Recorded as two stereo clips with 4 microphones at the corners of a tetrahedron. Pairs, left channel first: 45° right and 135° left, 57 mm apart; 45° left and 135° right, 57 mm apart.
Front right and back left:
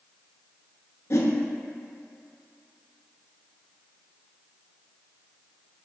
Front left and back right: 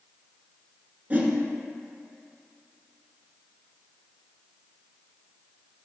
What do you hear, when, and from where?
1.1 s a whoosh: 80° right, 0.7 m